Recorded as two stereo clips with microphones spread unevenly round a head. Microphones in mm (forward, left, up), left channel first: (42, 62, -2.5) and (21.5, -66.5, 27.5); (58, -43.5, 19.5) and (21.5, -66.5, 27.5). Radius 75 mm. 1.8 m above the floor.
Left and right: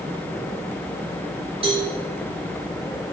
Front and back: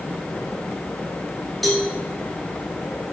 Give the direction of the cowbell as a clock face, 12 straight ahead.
2 o'clock.